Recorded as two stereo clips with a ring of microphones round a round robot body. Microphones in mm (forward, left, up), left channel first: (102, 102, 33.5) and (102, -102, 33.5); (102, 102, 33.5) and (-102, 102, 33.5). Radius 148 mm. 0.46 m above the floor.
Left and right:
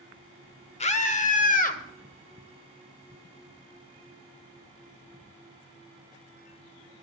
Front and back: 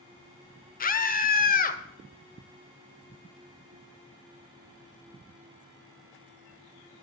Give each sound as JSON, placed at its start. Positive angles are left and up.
{"t": 0.8, "sound": "a scream", "azimuth_deg": 40, "distance_m": 1.3}